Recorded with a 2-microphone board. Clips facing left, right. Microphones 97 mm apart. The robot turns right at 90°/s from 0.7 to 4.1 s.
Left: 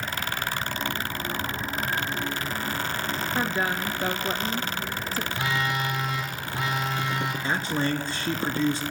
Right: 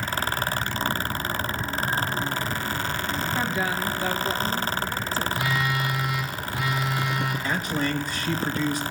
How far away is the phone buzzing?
About 7 m.